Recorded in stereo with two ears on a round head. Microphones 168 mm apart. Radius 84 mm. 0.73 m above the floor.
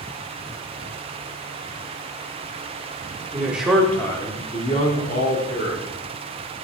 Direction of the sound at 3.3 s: 10° right (ahead or behind).